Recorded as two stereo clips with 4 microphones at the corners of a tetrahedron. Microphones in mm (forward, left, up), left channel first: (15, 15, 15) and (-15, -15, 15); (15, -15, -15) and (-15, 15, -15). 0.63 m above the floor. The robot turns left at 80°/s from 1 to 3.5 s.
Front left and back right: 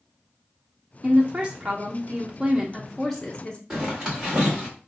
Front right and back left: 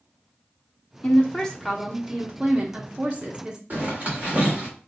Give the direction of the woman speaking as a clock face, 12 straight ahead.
2 o'clock.